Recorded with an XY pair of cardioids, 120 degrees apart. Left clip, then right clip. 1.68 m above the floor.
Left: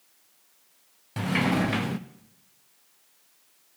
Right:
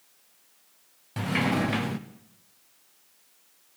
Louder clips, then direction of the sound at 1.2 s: Left 1 dB; 10° left.